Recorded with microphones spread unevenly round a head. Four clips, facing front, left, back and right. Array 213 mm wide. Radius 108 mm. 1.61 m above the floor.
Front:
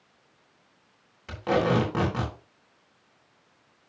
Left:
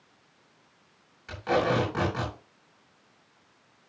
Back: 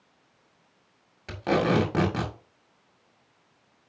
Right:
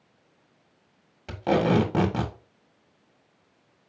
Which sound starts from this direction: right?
Tape being pulled, at 1.3 s.